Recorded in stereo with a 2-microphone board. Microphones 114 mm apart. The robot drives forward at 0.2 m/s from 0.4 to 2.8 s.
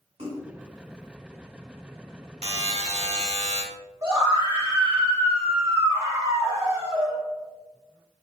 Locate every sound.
0.2 s a splash: 65° right (ahead or behind), 1.3 m
2.4 s a buzzer: 65° right (ahead or behind), 0.7 m; by 3.6 s 70° right (ahead or behind), 0.6 m
4.0 s a scream: 30° right (ahead or behind), 1.6 m